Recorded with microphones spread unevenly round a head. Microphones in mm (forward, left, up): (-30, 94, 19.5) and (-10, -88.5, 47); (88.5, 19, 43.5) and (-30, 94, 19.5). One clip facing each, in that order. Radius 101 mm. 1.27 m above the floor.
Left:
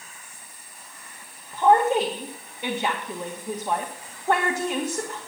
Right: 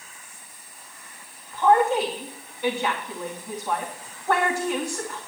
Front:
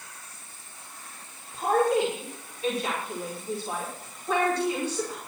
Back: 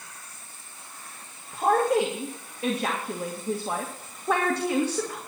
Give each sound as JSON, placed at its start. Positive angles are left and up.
{"t": 1.5, "sound": "a woman speaking", "azimuth_deg": 165, "distance_m": 1.9}